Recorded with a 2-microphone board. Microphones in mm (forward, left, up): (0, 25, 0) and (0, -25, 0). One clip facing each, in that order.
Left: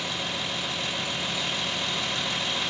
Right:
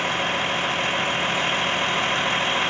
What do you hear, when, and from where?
0.0 s a vehicle: 45° right (ahead or behind); by 2.7 s 40° right (ahead or behind)